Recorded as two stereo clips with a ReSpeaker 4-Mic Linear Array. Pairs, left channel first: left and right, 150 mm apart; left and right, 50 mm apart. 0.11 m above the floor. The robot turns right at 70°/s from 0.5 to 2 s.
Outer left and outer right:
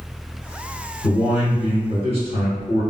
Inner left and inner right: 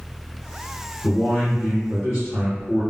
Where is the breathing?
I don't hear breathing.